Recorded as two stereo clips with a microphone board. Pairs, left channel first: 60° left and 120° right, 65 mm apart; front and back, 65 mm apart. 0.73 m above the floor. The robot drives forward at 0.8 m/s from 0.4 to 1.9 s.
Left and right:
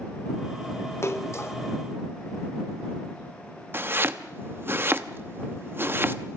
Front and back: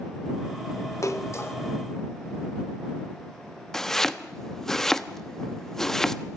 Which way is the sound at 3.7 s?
80° right.